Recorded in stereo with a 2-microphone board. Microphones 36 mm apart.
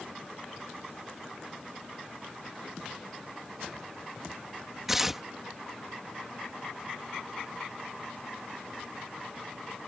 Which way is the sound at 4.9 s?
10° right (ahead or behind).